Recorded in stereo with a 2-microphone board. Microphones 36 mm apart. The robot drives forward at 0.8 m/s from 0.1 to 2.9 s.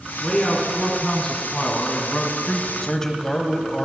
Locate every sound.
0.2 s a man speaking: 20° left (ahead or behind), 2.5 m; by 2.7 s 35° left (ahead or behind), 1.5 m
2.8 s a man speaking: 20° left (ahead or behind), 1.0 m